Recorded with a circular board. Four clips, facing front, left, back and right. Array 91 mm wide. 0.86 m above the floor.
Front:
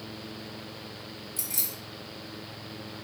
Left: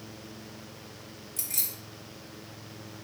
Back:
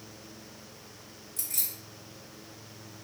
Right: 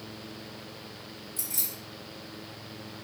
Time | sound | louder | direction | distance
1.4 | keys jangling | right 2 dB, front 7 dB | 75° left | 0.9 m